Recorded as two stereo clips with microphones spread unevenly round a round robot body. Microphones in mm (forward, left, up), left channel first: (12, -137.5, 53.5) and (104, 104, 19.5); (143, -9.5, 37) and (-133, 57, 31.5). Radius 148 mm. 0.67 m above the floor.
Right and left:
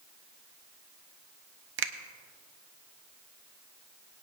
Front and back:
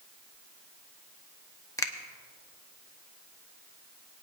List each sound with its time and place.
1.8 s a finger snap: 65° left, 0.8 m